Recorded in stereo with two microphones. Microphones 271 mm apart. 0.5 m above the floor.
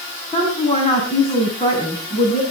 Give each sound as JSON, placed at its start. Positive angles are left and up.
{"t": 0.3, "sound": "a woman speaking", "side_deg": 20, "distance_m": 4.5}